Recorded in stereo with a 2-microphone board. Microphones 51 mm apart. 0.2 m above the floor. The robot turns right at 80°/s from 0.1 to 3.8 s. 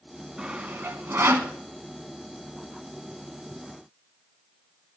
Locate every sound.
0.4 s sawing: 20° right (ahead or behind), 0.7 m; by 1.5 s 45° right (ahead or behind), 0.7 m